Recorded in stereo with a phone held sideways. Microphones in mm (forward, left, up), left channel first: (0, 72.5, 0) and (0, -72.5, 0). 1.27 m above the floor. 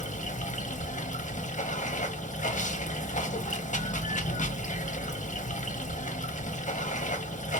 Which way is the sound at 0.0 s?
60° left (ahead or behind).